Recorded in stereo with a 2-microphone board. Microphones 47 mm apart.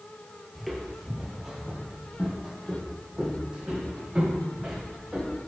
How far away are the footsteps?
About 1.5 m.